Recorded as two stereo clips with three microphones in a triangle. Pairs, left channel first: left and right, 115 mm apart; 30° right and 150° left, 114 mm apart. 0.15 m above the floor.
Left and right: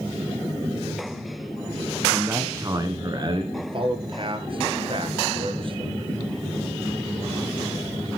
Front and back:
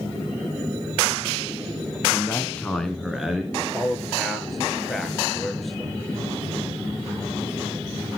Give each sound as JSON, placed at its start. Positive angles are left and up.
{"t": 2.1, "sound": "a man speaking", "azimuth_deg": -30, "distance_m": 1.1}
{"t": 3.5, "sound": "a man speaking", "azimuth_deg": -120, "distance_m": 2.0}